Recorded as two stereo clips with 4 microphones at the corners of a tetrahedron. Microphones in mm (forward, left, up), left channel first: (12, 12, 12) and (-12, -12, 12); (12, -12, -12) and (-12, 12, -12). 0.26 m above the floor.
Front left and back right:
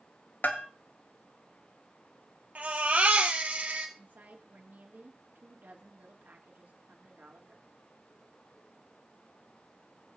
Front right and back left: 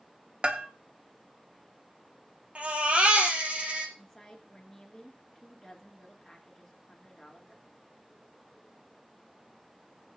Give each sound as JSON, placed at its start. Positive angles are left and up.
{"t": 0.4, "sound": "a bell", "azimuth_deg": 80, "distance_m": 1.0}
{"t": 2.5, "sound": "a baby crying", "azimuth_deg": -175, "distance_m": 2.5}
{"t": 4.0, "sound": "a woman speaking", "azimuth_deg": -130, "distance_m": 3.0}